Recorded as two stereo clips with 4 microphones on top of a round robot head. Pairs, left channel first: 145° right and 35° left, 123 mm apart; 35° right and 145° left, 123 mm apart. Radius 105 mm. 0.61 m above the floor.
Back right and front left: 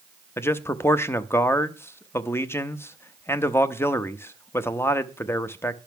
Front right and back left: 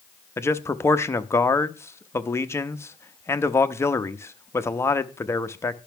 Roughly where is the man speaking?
Right.